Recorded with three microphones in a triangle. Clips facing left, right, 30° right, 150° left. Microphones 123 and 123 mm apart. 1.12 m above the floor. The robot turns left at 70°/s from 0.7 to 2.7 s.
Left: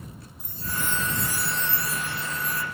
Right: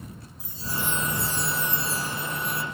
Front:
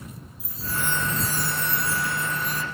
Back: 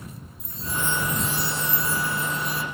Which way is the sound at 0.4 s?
55° left.